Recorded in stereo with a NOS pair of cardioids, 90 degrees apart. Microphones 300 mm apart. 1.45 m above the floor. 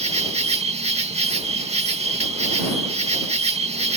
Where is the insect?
20° right.